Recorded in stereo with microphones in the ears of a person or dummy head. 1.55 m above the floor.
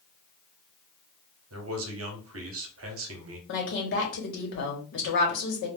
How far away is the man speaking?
About 0.7 m.